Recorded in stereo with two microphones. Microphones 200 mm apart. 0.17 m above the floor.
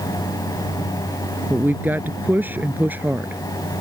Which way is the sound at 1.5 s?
10° right (ahead or behind).